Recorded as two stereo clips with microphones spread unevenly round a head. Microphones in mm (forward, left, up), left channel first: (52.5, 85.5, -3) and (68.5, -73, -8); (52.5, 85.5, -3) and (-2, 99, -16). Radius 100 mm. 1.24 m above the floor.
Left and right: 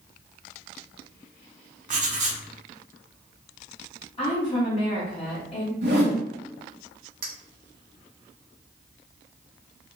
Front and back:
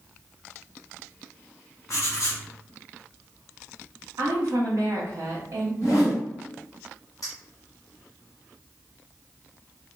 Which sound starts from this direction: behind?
A woman speaking, at 4.2 s.